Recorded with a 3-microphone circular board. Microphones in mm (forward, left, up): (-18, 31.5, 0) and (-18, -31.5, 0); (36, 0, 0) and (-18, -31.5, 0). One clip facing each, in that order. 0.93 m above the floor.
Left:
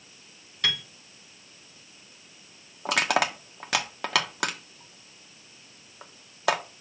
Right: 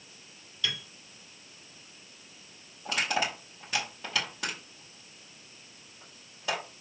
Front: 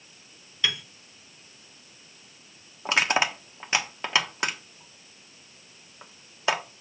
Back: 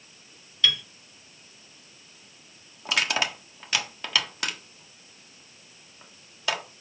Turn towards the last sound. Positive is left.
turn(degrees=95)